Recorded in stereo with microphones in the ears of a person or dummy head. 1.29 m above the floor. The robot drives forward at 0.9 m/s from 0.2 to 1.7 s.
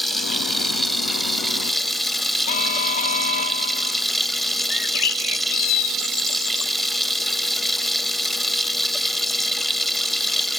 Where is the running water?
Centre (ahead or behind); by 10.6 s 5° right (ahead or behind).